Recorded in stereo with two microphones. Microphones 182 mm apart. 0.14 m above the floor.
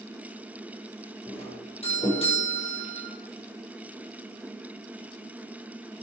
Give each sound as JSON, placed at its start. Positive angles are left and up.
{"t": 1.3, "sound": "a doorbell", "side_deg": 35, "distance_m": 6.5}